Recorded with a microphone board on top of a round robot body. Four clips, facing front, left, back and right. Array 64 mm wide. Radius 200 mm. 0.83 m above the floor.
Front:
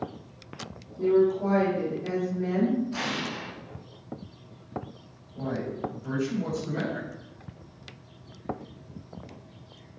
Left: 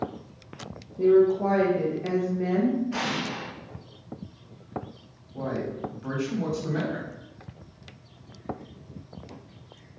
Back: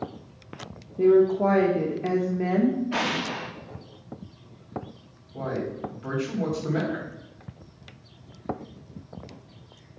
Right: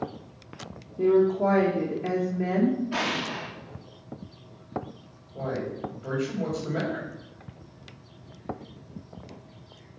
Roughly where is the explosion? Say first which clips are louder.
Right 1 dB, back 4 dB; behind.